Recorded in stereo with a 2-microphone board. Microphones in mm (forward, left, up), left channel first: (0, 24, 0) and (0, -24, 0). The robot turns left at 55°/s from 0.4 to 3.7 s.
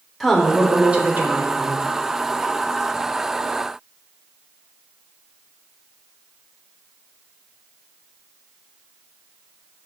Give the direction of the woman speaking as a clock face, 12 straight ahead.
12 o'clock.